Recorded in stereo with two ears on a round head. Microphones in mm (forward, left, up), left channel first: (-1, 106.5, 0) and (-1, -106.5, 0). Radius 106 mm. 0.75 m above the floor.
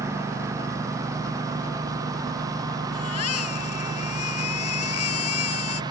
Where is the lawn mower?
15° right (ahead or behind); by 5.9 s 20° right (ahead or behind).